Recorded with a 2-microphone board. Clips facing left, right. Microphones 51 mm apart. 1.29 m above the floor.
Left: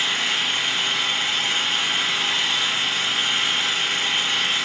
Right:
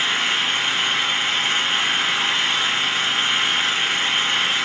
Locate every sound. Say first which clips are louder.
0.0 s an engine running: right 2 dB; 35° right (ahead or behind), 5 m